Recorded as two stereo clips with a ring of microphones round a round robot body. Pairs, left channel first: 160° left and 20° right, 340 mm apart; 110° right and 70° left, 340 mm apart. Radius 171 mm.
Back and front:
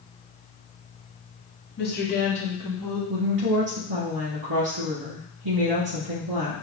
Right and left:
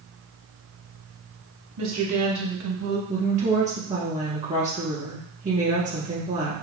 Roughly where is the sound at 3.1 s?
Ahead.